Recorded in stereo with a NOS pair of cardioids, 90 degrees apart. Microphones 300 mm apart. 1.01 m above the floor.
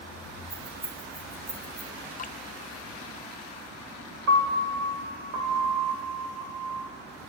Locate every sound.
0.5 s keys jangling: 40° right, 4.5 m; by 1.9 s 50° right, 3.5 m
2.2 s dripping: 30° left, 0.5 m
4.3 s a piano: 65° right, 1.8 m